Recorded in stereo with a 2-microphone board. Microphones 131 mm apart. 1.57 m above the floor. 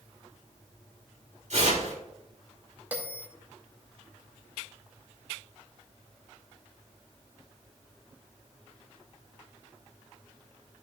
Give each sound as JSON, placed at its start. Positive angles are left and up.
{"t": 1.5, "sound": "tearing paper", "side_deg": -60, "distance_m": 3.0}
{"t": 2.9, "sound": "a bell", "side_deg": -15, "distance_m": 2.0}